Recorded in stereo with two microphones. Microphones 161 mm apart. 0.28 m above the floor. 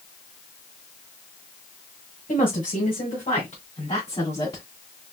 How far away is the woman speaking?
About 2.5 m.